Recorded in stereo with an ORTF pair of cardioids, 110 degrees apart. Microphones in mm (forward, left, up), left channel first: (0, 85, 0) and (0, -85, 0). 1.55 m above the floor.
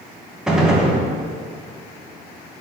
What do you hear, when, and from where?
0.5 s a gunshot: 5° right, 0.8 m